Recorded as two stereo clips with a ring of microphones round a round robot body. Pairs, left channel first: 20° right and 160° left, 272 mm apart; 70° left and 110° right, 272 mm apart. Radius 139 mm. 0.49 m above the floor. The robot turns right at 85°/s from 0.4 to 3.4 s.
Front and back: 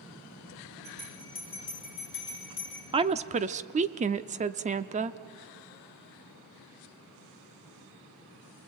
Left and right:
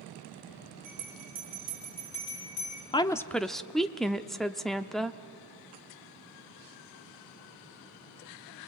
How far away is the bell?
About 8 m.